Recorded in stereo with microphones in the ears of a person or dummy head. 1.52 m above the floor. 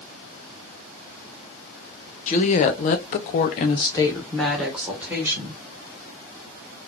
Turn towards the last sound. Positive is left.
turn(degrees=-10)  # may be behind; listen again after turning